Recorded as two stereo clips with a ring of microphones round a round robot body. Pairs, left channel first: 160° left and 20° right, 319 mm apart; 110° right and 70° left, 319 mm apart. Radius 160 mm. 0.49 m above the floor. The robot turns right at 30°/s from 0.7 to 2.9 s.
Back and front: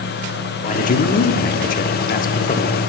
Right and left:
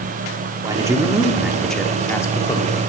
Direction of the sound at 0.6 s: 130° left.